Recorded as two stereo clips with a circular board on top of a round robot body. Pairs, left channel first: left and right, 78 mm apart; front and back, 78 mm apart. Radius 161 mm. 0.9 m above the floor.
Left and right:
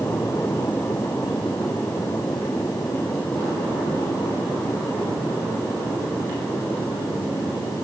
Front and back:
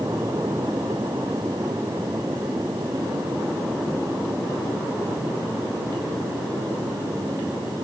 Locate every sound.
Only background noise.